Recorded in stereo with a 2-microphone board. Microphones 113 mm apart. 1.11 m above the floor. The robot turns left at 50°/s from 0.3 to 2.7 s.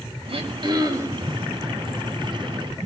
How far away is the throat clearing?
About 3.5 m.